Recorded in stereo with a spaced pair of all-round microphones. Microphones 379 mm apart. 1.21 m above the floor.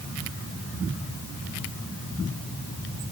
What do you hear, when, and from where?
Only background noise.